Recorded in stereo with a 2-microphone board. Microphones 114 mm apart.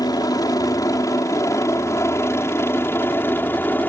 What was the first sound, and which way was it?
A helicopter, 35° left (ahead or behind).